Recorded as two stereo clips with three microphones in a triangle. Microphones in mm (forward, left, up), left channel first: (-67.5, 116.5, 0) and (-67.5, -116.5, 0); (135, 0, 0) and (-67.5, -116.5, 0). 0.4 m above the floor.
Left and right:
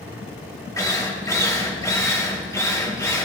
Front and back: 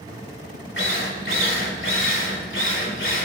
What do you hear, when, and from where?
0.8 s a drill: 15° left, 2 m